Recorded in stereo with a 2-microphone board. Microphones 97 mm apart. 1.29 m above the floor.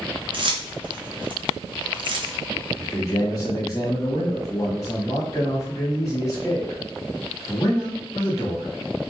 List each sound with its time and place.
0.3 s keys jangling: 55° right (ahead or behind), 0.6 m
2.8 s a man speaking: 35° left (ahead or behind), 1.3 m